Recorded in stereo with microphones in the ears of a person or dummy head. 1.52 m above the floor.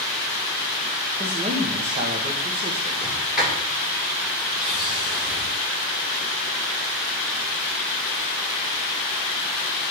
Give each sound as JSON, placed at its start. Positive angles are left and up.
{"t": 1.2, "sound": "a man speaking", "side_deg": -30, "distance_m": 1.4}
{"t": 3.0, "sound": "a sliding door", "side_deg": 0, "distance_m": 5.5}